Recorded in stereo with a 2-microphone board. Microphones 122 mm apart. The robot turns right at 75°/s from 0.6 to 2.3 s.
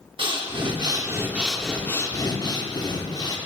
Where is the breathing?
75° right, 0.8 m; by 3.4 s 55° left, 0.8 m.